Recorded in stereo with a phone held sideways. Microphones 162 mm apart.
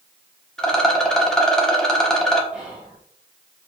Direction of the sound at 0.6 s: 5° left (ahead or behind).